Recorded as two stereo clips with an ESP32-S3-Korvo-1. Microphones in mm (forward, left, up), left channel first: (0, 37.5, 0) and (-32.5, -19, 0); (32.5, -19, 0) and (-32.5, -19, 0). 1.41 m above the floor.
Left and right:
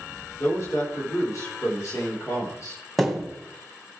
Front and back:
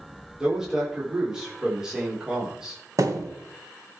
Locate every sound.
0.4 s a man speaking: 100° left, 3.5 m
3.0 s a thud: 150° left, 3 m